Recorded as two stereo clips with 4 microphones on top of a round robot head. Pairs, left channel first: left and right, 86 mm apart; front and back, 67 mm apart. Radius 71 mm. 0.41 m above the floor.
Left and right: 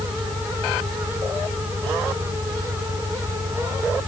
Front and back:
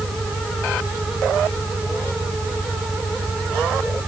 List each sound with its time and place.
0.0 s an engine running: 40° right